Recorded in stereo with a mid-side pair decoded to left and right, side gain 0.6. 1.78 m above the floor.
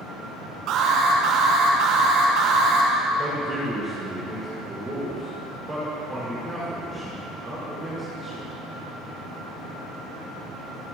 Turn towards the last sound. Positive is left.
turn(degrees=-15)